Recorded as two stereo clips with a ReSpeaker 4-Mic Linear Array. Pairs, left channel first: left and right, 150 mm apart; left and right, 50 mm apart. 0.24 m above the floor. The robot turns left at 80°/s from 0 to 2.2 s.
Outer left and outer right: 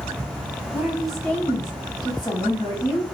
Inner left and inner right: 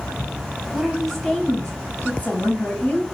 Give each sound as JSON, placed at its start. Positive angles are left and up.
{"t": 0.7, "sound": "a woman speaking", "azimuth_deg": -150, "distance_m": 1.1}